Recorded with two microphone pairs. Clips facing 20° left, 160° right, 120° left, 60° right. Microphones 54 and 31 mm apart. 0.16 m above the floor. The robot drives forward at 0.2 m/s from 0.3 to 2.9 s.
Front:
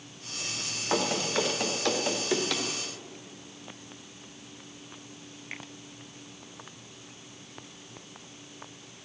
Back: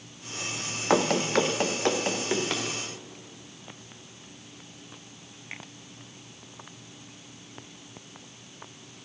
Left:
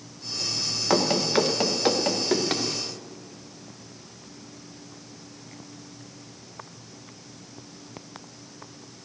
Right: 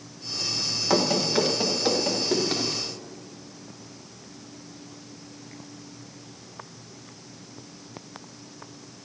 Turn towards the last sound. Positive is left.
turn(degrees=130)